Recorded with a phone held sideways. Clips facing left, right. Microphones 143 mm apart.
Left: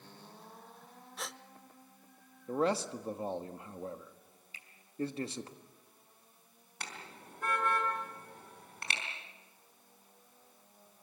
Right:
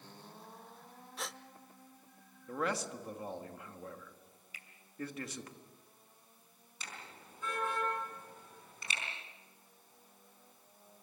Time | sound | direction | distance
1.2 | a gasp | centre (ahead or behind) | 0.5 m
2.5 | a man speaking | 30° left (ahead or behind) | 1.3 m
4.5 | a finger snap | 30° left (ahead or behind) | 3 m
6.8 | a car horn | 70° left (ahead or behind) | 4.5 m